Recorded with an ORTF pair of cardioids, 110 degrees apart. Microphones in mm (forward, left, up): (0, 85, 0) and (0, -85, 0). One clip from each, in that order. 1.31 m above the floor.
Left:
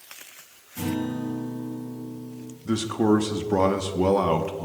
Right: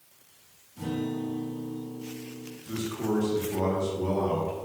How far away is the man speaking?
About 1.3 m.